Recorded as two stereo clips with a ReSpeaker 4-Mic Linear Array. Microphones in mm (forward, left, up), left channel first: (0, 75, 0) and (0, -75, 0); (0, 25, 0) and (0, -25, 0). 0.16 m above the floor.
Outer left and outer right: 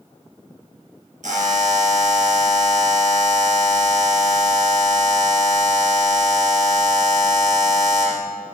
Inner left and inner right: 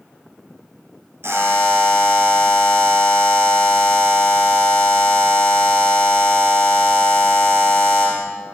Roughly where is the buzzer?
Right.